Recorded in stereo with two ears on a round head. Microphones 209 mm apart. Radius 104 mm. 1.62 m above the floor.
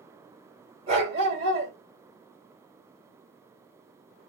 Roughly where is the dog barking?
Right.